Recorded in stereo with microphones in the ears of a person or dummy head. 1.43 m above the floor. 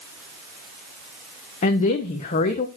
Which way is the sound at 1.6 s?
35° left (ahead or behind).